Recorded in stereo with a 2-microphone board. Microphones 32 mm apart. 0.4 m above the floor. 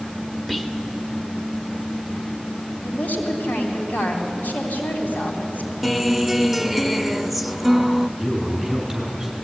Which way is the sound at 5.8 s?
Centre (ahead or behind).